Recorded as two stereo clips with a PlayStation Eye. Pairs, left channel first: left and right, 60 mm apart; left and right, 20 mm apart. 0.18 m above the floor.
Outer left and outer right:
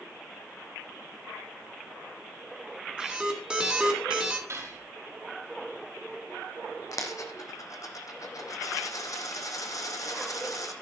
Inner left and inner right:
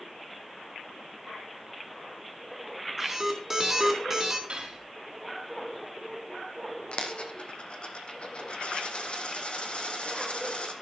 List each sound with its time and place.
3.0 s an alarm: 15° right (ahead or behind), 2 m
4.5 s cutlery clinking: 55° right (ahead or behind), 3.5 m
6.9 s a dropped coin: 65° left (ahead or behind), 1.5 m